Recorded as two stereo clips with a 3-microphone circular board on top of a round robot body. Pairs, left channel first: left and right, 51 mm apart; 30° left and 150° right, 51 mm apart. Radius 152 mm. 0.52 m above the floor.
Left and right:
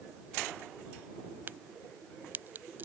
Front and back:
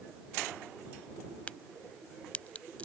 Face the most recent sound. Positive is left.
turn(degrees=-35)